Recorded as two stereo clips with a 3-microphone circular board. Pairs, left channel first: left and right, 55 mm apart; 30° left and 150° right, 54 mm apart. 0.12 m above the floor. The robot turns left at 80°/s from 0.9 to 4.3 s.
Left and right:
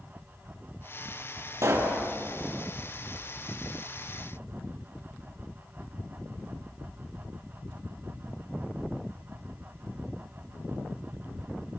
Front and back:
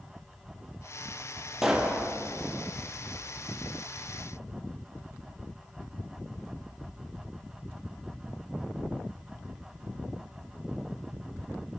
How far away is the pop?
About 4 m.